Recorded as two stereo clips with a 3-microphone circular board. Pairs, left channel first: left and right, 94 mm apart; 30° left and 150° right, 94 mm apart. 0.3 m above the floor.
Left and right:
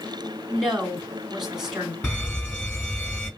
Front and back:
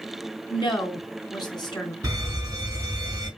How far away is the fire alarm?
About 4 m.